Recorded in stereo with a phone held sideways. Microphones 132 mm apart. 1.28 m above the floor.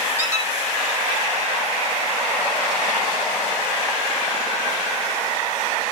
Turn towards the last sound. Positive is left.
turn(degrees=-20)  # may be behind; listen again after turning